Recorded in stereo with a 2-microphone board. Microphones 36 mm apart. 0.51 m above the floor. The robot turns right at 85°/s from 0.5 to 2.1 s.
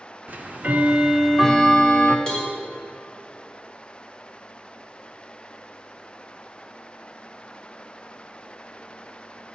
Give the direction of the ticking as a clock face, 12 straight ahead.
3 o'clock.